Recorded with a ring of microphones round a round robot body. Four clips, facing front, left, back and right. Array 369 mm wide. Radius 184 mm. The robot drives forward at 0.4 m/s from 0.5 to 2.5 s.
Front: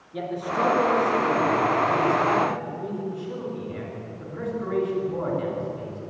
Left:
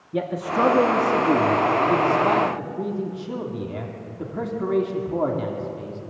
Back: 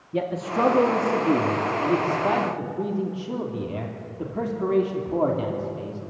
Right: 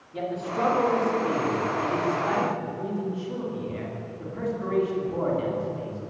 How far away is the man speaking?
About 2 m.